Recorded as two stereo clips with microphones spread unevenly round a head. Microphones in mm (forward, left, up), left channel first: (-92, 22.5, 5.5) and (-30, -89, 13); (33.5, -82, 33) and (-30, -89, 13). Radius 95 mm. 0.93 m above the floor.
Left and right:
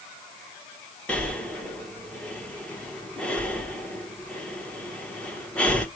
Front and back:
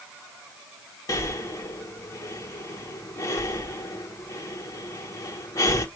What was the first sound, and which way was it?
Breathing, 45° left.